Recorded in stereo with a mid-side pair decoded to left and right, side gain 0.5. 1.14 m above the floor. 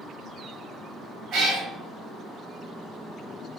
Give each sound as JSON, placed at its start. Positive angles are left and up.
{"t": 1.3, "sound": "a cat meowing", "azimuth_deg": -70, "distance_m": 1.4}